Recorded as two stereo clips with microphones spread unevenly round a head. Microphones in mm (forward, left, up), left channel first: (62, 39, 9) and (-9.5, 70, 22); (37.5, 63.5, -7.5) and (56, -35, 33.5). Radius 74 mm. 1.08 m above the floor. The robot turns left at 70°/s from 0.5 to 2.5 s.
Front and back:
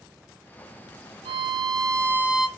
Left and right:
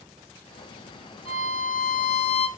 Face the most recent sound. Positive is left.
turn(degrees=70)